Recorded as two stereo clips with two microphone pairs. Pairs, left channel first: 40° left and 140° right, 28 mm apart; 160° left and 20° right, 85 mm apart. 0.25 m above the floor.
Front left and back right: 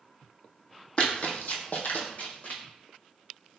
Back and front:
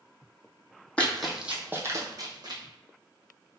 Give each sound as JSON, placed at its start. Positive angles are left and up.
{"t": 1.0, "sound": "running footsteps", "azimuth_deg": 85, "distance_m": 0.6}